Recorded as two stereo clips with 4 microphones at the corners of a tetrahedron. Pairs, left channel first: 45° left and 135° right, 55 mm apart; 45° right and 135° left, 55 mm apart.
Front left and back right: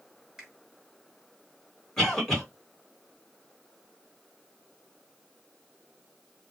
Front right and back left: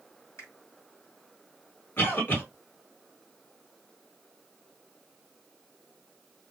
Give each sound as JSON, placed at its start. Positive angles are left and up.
{"t": 0.4, "sound": "a finger snap", "azimuth_deg": -50, "distance_m": 1.7}
{"t": 2.0, "sound": "a cough", "azimuth_deg": -30, "distance_m": 1.4}